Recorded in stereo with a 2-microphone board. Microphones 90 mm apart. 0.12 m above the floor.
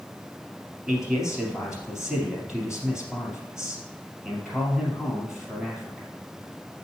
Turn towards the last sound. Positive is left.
turn(degrees=-5)  # may be behind; listen again after turning